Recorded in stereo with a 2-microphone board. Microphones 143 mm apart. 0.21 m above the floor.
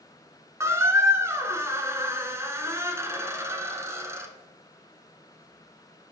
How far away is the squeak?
About 0.6 m.